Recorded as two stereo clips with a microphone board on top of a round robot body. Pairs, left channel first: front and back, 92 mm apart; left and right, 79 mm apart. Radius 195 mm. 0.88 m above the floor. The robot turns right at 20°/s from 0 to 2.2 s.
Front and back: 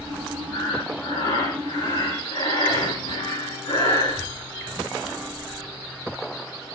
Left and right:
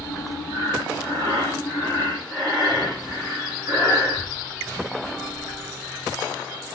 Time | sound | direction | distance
0.5 | breathing | 50° right | 6.5 m